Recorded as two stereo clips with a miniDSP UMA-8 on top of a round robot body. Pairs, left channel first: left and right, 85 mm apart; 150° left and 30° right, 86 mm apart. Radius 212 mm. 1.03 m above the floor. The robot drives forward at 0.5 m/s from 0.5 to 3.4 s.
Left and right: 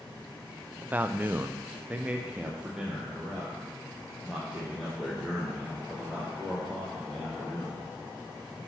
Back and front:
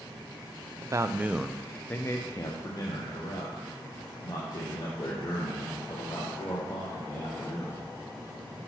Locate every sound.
0.8 s a man speaking: 30° right, 0.6 m; by 7.9 s 175° right, 1.2 m